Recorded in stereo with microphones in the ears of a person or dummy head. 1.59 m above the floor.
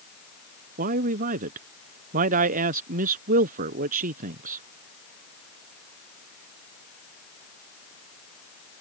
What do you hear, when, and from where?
0.8 s a man speaking: 50° right (ahead or behind)